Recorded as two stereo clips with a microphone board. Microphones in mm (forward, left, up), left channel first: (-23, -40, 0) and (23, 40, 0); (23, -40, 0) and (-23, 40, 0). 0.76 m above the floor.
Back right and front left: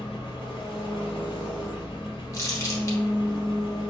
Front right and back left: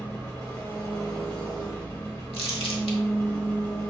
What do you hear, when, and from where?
0.0 s an engine running: 110° right, 1.6 m
2.3 s crumpling: 65° right, 1.1 m